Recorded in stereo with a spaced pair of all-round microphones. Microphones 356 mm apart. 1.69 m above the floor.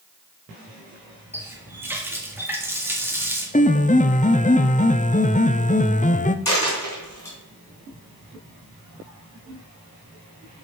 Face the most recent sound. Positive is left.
turn(degrees=70)  # may be behind; listen again after turning